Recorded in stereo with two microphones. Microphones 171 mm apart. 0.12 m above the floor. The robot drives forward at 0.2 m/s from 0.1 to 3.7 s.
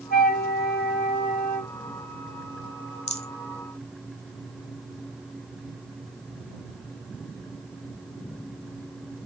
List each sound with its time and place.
0.1 s a flute: 60° left (ahead or behind), 1.4 m; by 1.7 s 70° left (ahead or behind), 1.3 m
3.1 s a rattle: 40° left (ahead or behind), 0.8 m